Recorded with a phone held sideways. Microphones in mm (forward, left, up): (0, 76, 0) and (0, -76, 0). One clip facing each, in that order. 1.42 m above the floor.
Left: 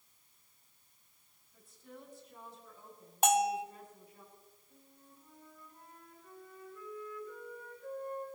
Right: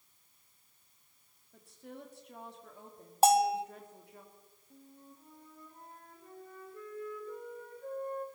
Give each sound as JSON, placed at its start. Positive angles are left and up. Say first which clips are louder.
{"t": 1.5, "sound": "a woman speaking", "louder": "right 4 dB", "side_deg": -65, "distance_m": 2.5}
{"t": 3.2, "sound": "a bell", "louder": "right 4 dB", "side_deg": -30, "distance_m": 0.6}
{"t": 4.7, "sound": "a flute", "louder": "right 9 dB", "side_deg": -35, "distance_m": 2.5}